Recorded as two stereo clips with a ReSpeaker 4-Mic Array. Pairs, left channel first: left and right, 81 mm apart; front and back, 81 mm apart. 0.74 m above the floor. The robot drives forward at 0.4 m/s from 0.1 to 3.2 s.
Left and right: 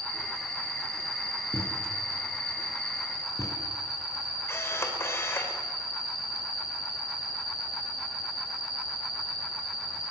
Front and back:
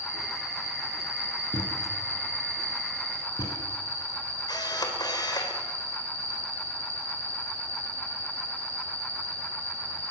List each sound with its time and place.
0.0 s an insect: 50° right, 4.5 m; by 10.1 s 65° right, 4 m
1.5 s a thud: 30° left, 5 m; by 3.6 s 35° left, 4.5 m
4.5 s a camera shutter: 30° left, 3 m